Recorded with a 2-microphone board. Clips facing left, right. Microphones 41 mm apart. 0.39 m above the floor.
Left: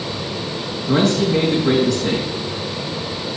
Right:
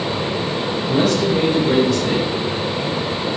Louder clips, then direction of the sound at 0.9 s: Left 1 dB; 75° left (ahead or behind).